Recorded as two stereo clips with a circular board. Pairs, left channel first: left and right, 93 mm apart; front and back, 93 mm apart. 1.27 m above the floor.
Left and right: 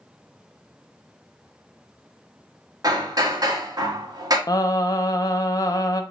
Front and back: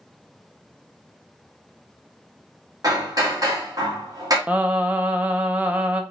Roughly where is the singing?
Left.